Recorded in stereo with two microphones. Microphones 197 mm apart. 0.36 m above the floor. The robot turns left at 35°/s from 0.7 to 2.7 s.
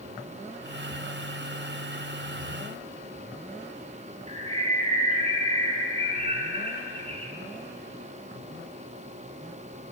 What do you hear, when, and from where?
4.3 s a bird: 30° right (ahead or behind), 1.5 m